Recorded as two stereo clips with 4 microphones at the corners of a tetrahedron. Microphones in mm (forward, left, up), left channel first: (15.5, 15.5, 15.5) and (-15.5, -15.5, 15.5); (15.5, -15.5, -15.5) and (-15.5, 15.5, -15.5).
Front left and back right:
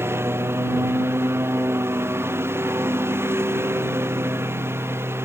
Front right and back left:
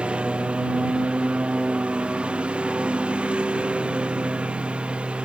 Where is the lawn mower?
160° right.